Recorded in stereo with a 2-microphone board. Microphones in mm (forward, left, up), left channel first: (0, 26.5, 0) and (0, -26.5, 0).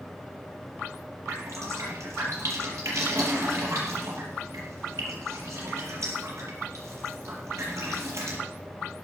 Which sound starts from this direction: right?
Dripping, at 1.3 s.